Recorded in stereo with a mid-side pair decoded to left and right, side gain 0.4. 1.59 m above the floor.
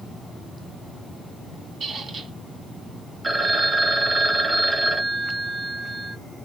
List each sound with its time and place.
1.8 s a squeak: 55° right, 2 m
3.2 s a phone ringing: 35° right, 1.6 m